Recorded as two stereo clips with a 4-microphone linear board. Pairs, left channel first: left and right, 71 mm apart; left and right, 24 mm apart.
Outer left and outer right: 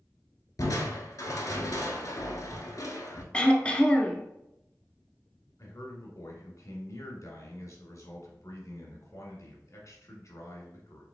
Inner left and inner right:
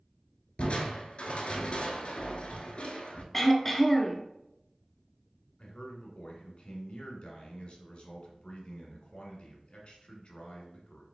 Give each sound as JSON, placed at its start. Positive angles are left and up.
{"t": 0.6, "sound": "crushing", "side_deg": 60, "distance_m": 0.8}
{"t": 3.3, "sound": "throat clearing", "side_deg": 15, "distance_m": 0.7}
{"t": 5.6, "sound": "a man speaking", "side_deg": 50, "distance_m": 1.6}